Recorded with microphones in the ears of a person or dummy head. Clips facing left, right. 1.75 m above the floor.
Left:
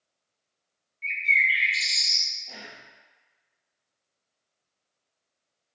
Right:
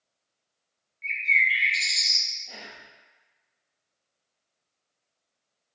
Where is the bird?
5° left (ahead or behind), 1.2 m.